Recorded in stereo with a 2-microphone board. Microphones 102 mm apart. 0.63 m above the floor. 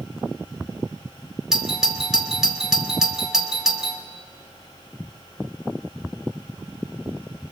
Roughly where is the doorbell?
Centre.